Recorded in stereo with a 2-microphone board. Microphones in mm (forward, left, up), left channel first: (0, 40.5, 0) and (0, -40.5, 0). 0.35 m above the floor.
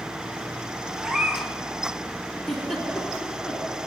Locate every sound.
1.0 s a cat meowing: 5° right (ahead or behind), 0.8 m
2.5 s a giggle: 5° left (ahead or behind), 1.8 m